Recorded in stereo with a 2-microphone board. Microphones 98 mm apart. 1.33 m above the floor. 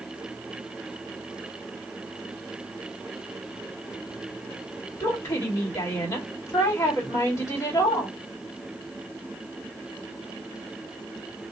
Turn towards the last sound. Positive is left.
turn(degrees=35)  # may be behind; listen again after turning